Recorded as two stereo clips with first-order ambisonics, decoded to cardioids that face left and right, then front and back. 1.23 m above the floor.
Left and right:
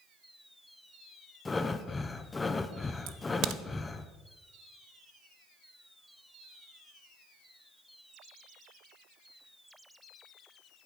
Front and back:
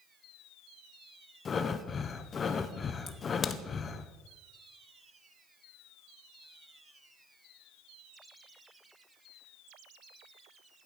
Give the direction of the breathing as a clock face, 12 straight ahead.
11 o'clock.